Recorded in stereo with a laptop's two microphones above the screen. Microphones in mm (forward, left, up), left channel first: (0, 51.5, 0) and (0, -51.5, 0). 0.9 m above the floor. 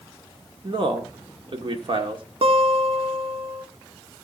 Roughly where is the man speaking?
Right.